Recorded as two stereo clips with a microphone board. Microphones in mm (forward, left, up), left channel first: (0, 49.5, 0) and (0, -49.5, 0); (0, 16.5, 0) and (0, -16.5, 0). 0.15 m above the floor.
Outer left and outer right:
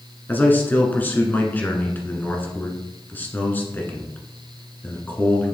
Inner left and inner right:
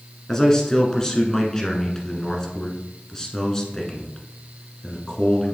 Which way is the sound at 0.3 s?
20° left (ahead or behind).